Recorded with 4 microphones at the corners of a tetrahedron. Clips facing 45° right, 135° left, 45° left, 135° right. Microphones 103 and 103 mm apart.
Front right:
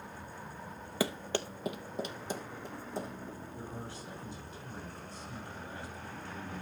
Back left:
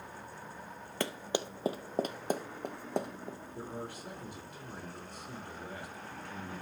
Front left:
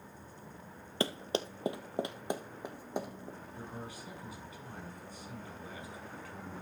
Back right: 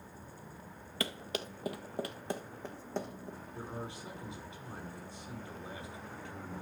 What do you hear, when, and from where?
1.0 s running footsteps: 35° left, 0.7 m; by 3.4 s 125° left, 1.7 m
3.5 s a man speaking: 160° left, 6.5 m